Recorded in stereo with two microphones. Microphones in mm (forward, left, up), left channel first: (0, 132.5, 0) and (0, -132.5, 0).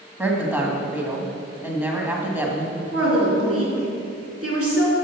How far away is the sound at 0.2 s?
About 1.5 m.